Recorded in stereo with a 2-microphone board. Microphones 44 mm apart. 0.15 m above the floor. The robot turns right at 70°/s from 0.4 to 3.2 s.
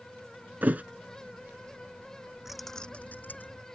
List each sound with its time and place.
0.6 s a thud: 45° right (ahead or behind); by 0.8 s 35° right (ahead or behind)
2.5 s keys jangling: 5° right; by 3.6 s 45° left